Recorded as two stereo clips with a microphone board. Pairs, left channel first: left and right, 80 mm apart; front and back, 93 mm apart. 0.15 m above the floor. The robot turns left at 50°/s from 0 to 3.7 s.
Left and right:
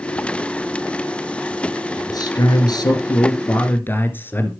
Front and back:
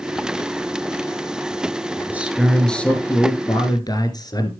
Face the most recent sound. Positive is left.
turn(degrees=30)